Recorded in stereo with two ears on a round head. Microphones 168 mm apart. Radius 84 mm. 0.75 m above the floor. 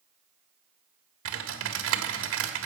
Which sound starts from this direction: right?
Typing on a keyboard, at 1.2 s.